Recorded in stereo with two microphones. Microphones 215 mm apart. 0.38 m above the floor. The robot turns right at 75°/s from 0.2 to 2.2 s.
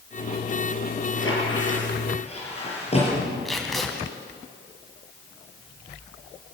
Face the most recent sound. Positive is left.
turn(degrees=0)  # may be behind; listen again after turning